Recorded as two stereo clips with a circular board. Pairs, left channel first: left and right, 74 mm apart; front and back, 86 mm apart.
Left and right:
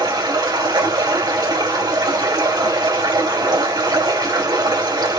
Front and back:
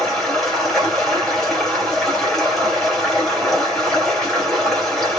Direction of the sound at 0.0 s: 85° right.